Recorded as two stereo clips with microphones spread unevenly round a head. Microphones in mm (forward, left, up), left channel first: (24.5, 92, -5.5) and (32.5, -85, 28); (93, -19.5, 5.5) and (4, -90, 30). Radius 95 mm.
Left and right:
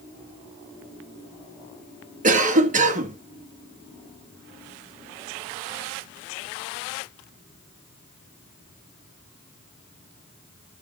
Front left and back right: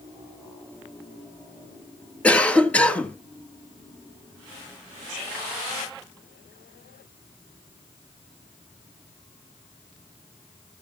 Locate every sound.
2.2 s a cough: 40° right, 2 m